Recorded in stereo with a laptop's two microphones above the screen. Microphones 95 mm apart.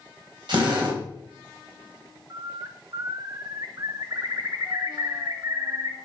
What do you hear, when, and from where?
0.5 s a drill: 60° right (ahead or behind), 4 m
2.3 s a bird: 40° right (ahead or behind), 1.0 m